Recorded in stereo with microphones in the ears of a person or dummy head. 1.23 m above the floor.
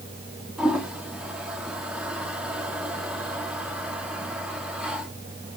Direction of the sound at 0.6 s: 10° right (ahead or behind).